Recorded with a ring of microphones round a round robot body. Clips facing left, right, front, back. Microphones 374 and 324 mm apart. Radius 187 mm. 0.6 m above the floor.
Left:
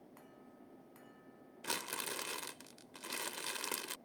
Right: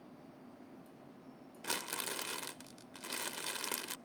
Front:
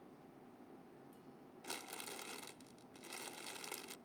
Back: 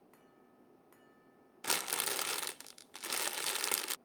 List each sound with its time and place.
1.6 s crumpling: straight behind